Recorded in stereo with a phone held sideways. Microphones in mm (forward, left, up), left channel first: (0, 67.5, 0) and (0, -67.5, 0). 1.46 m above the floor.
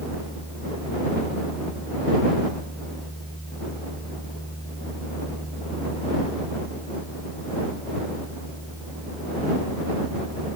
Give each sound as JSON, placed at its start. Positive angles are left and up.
{"t": 0.0, "sound": "a fan", "side_deg": 15}